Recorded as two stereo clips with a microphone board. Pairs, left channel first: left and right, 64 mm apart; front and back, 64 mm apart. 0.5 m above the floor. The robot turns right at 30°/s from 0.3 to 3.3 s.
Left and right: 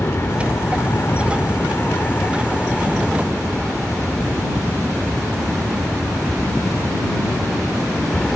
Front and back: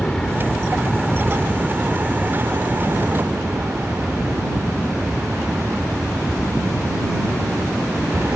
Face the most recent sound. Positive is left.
turn(degrees=170)